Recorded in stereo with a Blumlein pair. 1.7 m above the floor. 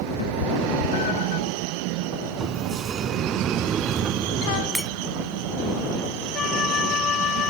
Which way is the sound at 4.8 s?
Straight ahead.